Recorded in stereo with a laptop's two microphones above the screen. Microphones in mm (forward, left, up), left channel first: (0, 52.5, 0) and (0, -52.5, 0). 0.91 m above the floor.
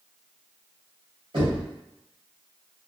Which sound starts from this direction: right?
Knocking, at 1.3 s.